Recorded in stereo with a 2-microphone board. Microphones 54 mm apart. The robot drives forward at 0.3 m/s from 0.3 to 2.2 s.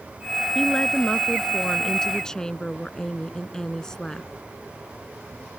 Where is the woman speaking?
10° left (ahead or behind).